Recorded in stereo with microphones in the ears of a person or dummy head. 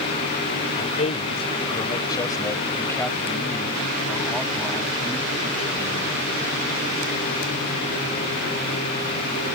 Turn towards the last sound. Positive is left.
turn(degrees=-5)  # may be behind; listen again after turning